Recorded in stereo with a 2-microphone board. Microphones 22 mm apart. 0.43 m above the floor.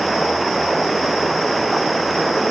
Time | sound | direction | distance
0.0 | running water | centre (ahead or behind) | ?